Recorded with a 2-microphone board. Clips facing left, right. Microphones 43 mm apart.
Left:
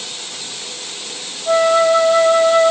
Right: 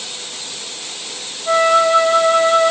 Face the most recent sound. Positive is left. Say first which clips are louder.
# even
turn(degrees=-40)  # may be behind; listen again after turning